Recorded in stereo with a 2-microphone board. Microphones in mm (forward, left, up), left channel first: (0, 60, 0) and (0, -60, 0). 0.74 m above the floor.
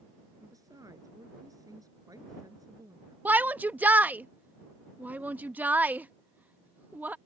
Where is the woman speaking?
30° right (ahead or behind).